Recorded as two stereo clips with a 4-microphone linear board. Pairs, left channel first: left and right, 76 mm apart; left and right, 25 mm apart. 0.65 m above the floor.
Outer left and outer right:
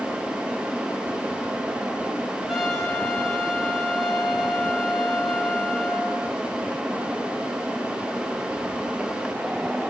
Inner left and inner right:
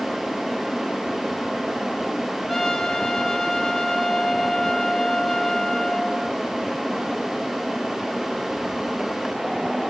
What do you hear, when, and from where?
2.5 s a trumpet: 5° right (ahead or behind), 4 m